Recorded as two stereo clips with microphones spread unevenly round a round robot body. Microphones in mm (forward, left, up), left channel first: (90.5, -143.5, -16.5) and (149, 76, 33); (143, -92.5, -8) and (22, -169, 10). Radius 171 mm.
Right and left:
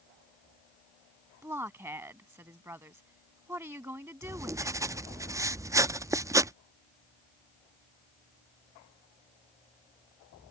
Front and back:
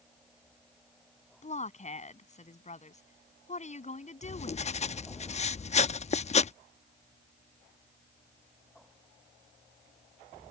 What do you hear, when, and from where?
1.4 s a woman speaking: 5° right
4.2 s writing: 10° right